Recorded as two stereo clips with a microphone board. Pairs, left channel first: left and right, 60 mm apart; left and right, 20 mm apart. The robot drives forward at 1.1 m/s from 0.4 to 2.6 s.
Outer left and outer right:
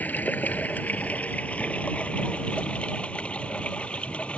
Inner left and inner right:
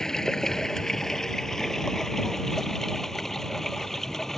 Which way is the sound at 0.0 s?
30° left (ahead or behind).